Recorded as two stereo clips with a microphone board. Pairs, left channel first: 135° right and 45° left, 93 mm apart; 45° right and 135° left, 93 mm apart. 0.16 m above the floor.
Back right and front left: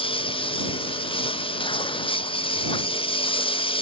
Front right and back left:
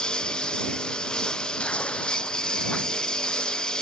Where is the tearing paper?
125° right.